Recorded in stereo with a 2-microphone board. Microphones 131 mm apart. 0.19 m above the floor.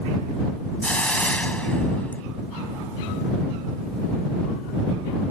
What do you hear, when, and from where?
0.8 s a hiss: 10° left (ahead or behind)